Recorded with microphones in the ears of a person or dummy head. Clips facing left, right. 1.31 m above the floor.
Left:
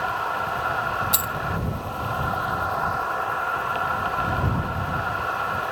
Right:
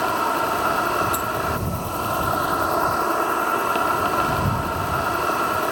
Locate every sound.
0.0 s an insect: 60° right (ahead or behind)
1.1 s a dropped coin: 35° left (ahead or behind)